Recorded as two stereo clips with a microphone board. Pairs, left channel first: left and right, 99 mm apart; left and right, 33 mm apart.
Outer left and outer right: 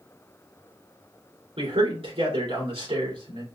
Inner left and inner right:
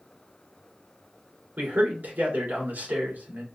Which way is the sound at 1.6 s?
75° right (ahead or behind).